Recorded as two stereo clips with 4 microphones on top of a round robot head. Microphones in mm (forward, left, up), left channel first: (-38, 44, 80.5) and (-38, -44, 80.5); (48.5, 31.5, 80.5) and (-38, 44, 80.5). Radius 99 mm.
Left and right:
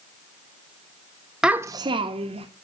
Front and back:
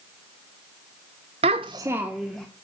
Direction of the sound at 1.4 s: 175° right.